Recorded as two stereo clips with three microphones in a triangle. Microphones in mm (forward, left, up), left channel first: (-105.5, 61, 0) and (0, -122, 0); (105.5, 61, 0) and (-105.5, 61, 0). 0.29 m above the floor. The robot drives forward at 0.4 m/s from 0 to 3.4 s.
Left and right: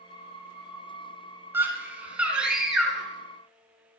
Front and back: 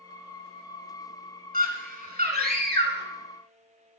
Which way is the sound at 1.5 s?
140° right.